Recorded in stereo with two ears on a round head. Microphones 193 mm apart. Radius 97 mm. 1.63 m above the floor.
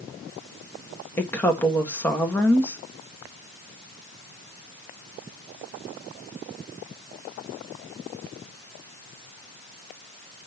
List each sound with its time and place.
1.2 s a woman speaking: 10° left (ahead or behind), 1.7 m